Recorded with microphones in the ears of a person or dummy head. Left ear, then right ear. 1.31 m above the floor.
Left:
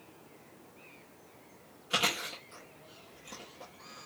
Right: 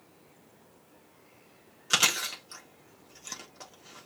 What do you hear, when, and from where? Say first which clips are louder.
1.9 s chewing: right 5 dB; 55° right (ahead or behind), 1.5 m